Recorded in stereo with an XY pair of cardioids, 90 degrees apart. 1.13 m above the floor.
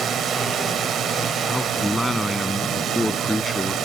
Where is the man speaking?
10° left.